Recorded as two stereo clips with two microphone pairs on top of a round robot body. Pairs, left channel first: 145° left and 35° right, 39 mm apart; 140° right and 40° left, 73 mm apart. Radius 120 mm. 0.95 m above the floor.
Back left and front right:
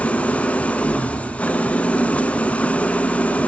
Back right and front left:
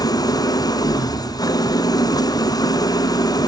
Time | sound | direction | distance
0.0 | an engine running | 160° right | 1.1 m